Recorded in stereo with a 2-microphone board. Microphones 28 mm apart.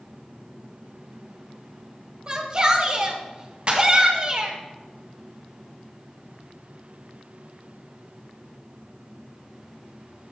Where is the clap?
45° right (ahead or behind), 2 m.